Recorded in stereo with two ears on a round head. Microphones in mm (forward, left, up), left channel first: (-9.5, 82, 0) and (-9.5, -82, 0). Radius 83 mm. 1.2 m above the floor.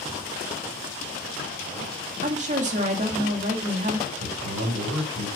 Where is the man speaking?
85° right, 5 m.